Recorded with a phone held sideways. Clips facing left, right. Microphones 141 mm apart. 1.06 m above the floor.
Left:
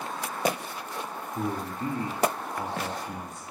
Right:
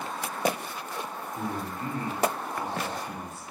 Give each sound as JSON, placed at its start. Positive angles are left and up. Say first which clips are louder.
{"t": 1.4, "sound": "a man speaking", "louder": "left 3 dB", "side_deg": 35, "distance_m": 1.7}